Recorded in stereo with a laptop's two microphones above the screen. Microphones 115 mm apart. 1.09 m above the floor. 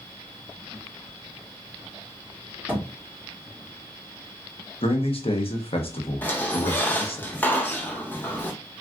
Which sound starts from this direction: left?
A man speaking, at 4.8 s.